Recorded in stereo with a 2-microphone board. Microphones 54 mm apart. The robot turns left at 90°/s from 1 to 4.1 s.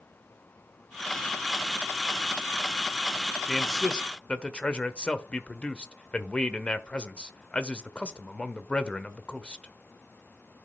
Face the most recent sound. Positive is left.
turn(degrees=20)  # may be behind; listen again after turning